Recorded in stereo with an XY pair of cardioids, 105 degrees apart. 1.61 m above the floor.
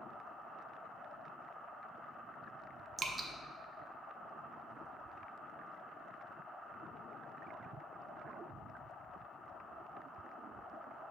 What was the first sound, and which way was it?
Dripping, 35° right.